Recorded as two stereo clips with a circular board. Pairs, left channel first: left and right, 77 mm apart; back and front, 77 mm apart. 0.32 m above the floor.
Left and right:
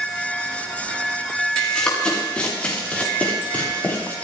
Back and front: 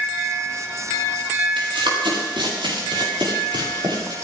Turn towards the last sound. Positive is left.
turn(degrees=20)